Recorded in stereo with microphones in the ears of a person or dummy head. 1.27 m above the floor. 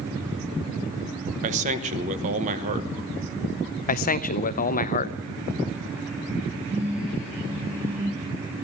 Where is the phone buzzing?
35° right (ahead or behind), 7.5 m.